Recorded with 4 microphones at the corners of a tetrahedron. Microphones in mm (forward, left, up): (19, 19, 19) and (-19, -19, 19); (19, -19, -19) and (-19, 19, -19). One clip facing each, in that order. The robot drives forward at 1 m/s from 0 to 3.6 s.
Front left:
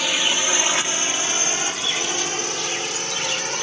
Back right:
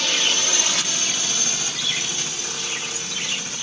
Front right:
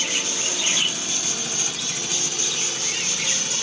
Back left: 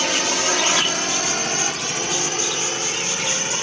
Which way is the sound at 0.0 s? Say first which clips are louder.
Front left 1 dB, back left 6 dB; 125° left.